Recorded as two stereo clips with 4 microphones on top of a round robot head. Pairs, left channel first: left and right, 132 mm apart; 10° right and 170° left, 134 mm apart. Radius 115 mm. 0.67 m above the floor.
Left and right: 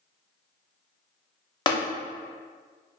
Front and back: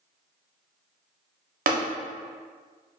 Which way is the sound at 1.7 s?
150° left.